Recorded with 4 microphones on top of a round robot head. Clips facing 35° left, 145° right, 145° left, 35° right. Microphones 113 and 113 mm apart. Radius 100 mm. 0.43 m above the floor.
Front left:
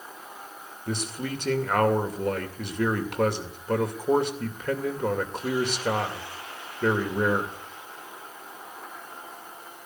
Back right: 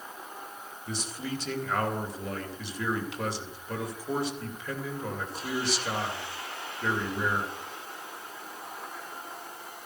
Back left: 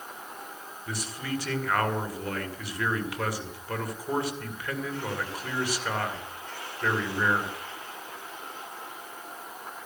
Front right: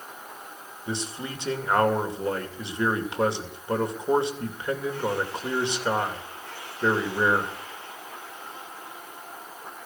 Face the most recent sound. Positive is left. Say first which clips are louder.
# front left 4 dB, front right 1 dB
turn(degrees=25)